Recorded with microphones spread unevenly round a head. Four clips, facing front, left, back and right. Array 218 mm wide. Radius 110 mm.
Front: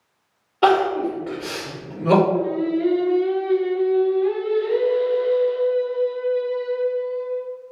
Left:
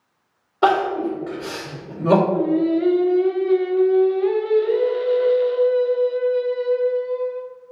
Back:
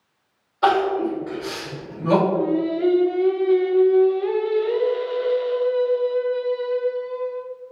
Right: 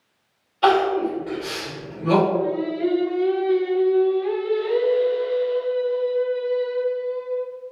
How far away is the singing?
About 0.5 m.